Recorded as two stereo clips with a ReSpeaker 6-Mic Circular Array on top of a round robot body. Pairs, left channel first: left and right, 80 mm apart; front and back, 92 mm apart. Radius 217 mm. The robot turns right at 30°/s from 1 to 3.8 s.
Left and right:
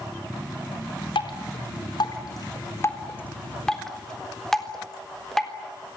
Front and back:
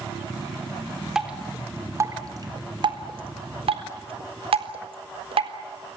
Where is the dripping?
95° left, 4 m; by 5.5 s 175° left, 4 m.